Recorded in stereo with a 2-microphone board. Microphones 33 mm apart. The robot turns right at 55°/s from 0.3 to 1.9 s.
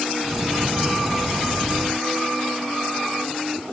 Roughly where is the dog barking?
No dog barking in this recording.